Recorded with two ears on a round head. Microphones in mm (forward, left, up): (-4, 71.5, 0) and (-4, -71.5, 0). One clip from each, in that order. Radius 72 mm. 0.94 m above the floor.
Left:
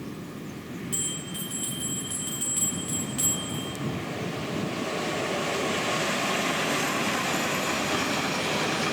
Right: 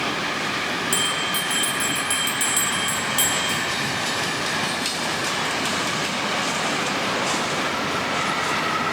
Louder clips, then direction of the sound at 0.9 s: Right 9 dB; 70° right (ahead or behind).